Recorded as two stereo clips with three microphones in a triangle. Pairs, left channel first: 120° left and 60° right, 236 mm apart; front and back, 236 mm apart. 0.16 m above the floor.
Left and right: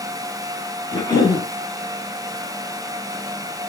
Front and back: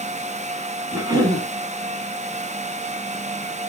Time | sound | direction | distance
0.9 | a cough | 150° left | 1.2 m